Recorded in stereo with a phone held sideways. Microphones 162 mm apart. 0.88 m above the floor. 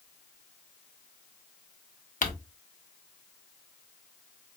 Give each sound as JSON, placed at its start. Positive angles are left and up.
{"t": 2.2, "sound": "crumpling", "side_deg": 55, "distance_m": 0.8}